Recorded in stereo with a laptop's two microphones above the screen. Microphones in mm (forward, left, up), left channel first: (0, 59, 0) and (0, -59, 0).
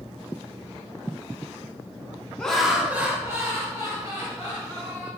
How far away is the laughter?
About 0.5 m.